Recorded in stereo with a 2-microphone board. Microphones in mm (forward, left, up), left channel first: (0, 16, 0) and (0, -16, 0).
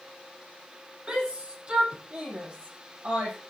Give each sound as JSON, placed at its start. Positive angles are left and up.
{"t": 1.1, "sound": "a shout", "side_deg": -35, "distance_m": 8.0}